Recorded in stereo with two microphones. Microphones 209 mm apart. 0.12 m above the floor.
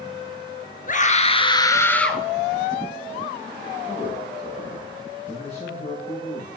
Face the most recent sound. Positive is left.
turn(degrees=30)  # may be behind; listen again after turning